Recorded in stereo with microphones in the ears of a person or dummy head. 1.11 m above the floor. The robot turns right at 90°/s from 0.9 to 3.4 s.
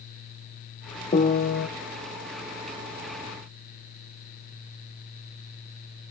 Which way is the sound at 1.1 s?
35° left.